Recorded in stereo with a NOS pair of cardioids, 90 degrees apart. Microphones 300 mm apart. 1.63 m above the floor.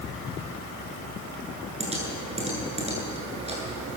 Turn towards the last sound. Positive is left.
turn(degrees=-20)